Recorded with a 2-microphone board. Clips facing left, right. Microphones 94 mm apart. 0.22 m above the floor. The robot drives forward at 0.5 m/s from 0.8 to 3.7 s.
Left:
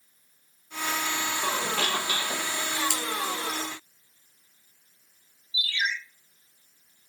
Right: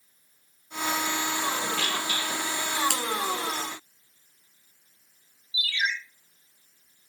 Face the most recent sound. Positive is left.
turn(degrees=25)  # may be behind; listen again after turning